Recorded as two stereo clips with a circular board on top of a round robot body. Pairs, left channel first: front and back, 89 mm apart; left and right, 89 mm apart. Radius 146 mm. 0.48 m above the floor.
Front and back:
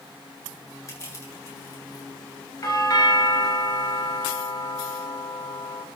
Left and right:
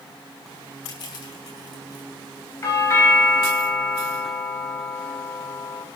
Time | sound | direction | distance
0.9 | crushing | 55° left | 8 m
2.6 | a doorbell | 40° left | 3 m